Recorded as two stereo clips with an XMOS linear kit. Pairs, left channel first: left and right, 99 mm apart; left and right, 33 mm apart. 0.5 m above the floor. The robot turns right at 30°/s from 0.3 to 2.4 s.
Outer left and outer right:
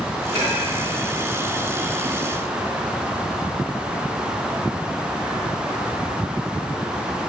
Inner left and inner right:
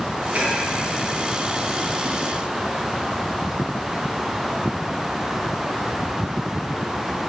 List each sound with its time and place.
0.3 s dishes clattering: 65° right (ahead or behind), 2 m; by 0.6 s 60° right (ahead or behind), 2 m